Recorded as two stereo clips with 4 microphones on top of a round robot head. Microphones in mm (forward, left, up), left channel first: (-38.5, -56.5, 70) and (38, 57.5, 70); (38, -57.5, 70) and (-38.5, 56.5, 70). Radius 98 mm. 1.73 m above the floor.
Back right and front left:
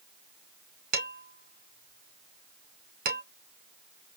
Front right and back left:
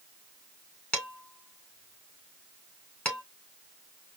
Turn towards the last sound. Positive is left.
turn(degrees=25)